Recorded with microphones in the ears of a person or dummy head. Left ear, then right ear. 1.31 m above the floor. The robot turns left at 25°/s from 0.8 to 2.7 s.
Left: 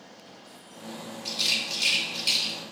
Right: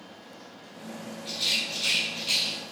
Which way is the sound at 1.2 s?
75° left (ahead or behind).